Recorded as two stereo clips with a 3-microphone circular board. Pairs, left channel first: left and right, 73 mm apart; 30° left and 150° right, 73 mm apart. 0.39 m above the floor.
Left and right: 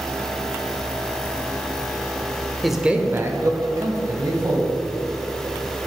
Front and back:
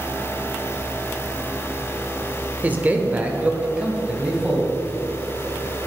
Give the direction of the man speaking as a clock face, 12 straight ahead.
6 o'clock.